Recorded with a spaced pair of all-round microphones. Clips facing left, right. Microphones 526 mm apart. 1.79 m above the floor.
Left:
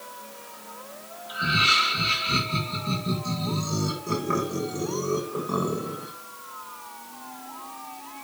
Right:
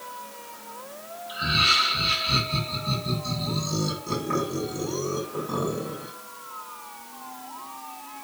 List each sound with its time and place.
1.3 s laughter: 15° right (ahead or behind), 8 m